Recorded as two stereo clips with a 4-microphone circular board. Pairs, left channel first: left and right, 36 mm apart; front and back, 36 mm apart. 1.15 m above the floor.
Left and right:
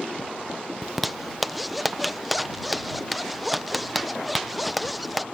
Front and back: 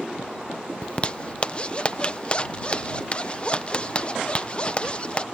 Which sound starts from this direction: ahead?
A zipper, at 0.8 s.